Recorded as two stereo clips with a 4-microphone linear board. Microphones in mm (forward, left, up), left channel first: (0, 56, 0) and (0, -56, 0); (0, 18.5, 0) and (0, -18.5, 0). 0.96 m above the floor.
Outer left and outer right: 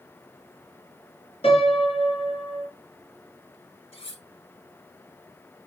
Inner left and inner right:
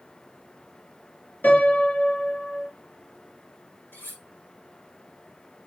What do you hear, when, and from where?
1.4 s a piano: 60° left (ahead or behind), 3.5 m
3.9 s cutlery clinking: 60° left (ahead or behind), 4 m